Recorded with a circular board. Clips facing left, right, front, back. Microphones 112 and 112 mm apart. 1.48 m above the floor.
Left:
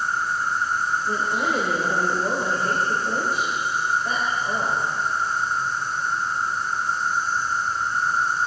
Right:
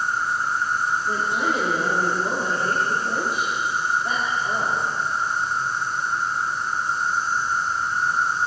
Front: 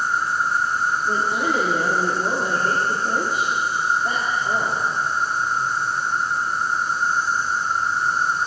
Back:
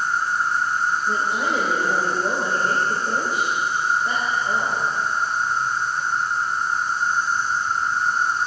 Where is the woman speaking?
20° right, 4.5 m.